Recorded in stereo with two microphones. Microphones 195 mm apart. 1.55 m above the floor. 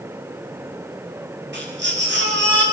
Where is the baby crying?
75° right (ahead or behind), 7.5 m.